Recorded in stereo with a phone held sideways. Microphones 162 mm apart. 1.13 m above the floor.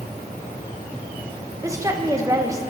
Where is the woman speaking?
20° right (ahead or behind), 1.1 m.